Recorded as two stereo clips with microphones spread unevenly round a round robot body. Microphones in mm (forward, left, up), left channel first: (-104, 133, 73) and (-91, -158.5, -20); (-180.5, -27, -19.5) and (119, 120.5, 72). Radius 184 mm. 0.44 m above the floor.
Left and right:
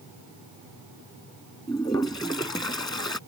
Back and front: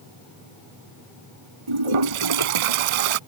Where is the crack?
I don't hear a crack.